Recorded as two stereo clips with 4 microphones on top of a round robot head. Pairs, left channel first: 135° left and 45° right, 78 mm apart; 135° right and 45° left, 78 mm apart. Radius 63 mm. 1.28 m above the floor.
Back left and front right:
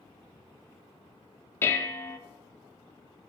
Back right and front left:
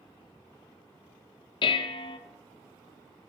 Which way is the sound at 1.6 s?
160° right.